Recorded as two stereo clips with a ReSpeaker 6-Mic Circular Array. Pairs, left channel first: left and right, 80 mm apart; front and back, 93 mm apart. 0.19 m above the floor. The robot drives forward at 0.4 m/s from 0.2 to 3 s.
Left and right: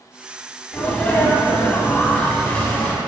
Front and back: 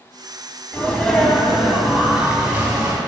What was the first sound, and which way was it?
A sneeze, 50° left.